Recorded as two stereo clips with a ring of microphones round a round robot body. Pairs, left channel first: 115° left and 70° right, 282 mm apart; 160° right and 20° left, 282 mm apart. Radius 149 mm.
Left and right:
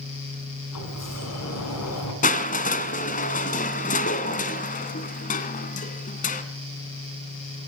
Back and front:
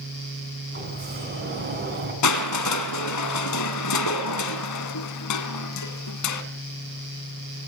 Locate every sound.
0.7 s a sliding door: 80° left, 7.5 m
2.2 s crushing: 175° left, 2 m